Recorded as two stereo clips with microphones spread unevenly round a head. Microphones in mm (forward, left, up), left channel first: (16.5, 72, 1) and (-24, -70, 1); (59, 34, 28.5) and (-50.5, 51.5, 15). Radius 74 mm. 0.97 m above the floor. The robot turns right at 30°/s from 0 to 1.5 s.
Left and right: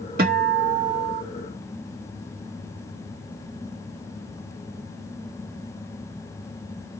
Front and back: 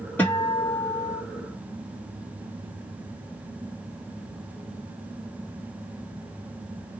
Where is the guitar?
90° right, 1.3 m; by 1.2 s 60° right, 1.3 m.